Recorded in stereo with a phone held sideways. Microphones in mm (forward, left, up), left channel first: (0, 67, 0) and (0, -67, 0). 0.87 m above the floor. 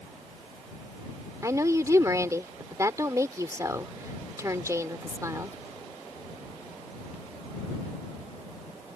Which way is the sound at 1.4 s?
25° right (ahead or behind).